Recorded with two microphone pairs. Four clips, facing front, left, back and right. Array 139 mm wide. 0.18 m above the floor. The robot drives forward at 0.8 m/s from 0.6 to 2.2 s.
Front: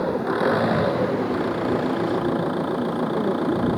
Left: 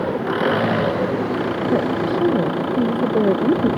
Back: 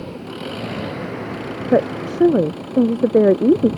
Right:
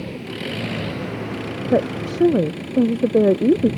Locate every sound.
0.0 s an engine running: 55° left; by 3.8 s 60° left
1.7 s a woman speaking: 160° right; by 3.7 s 165° right